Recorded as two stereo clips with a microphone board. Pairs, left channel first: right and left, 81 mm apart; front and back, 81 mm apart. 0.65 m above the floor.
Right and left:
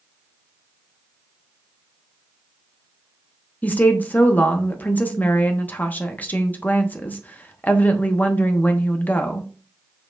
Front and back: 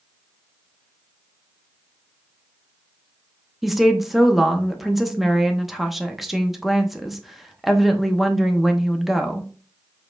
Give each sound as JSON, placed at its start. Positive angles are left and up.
{"t": 3.6, "sound": "a woman speaking", "azimuth_deg": -100, "distance_m": 0.7}